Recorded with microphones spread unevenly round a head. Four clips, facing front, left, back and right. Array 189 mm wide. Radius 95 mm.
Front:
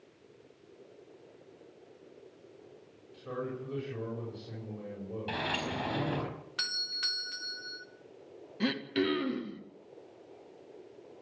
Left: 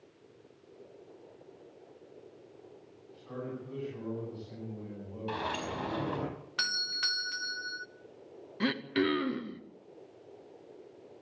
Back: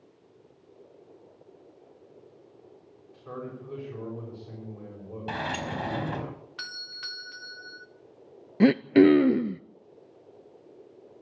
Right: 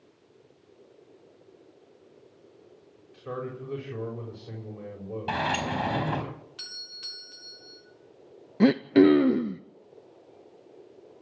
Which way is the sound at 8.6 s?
135° right.